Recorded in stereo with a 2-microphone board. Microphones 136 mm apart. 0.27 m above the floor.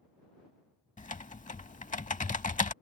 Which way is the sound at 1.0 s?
65° left (ahead or behind).